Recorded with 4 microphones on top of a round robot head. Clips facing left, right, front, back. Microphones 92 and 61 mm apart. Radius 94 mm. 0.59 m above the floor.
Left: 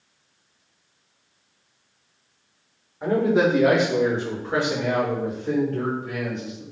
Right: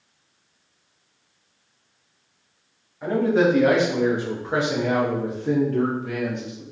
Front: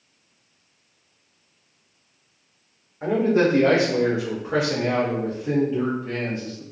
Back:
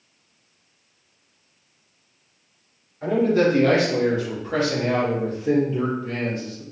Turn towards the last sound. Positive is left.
turn(degrees=-100)